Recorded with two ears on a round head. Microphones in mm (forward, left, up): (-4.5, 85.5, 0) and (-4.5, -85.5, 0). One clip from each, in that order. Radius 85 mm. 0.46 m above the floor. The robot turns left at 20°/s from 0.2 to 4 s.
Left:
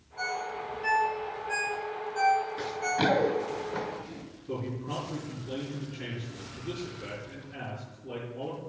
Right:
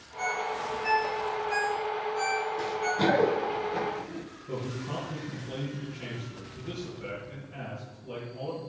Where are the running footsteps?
70° left (ahead or behind), 3.5 m; by 4.2 s 15° left (ahead or behind), 4.5 m.